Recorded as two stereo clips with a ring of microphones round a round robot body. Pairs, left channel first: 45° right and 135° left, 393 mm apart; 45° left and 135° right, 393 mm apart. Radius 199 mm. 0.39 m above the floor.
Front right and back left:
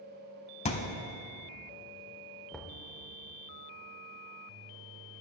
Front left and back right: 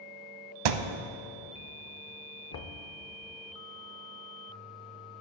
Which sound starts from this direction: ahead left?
Knocking, at 2.5 s.